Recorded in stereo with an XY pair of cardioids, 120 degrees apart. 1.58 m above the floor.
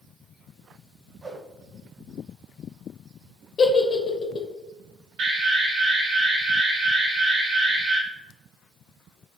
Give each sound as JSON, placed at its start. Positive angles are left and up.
{"t": 1.2, "sound": "a whoosh", "azimuth_deg": -30, "distance_m": 1.4}
{"t": 3.6, "sound": "a giggle", "azimuth_deg": 40, "distance_m": 0.8}
{"t": 5.2, "sound": "an alarm", "azimuth_deg": -60, "distance_m": 1.9}